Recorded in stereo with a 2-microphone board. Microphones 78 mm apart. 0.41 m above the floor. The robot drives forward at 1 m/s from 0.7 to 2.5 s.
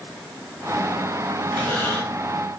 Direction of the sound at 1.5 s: 15° left (ahead or behind).